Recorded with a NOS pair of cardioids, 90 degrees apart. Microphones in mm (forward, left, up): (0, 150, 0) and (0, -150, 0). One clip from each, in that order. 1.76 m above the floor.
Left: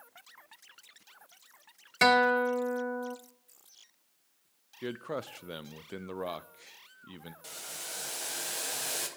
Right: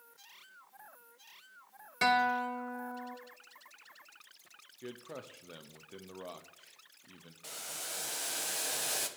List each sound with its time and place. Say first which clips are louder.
2.0 s a guitar: left 5 dB; 30° left, 0.9 m
4.8 s a man speaking: left 9 dB; 40° left, 0.7 m
7.4 s boiling: even; 5° right, 1.6 m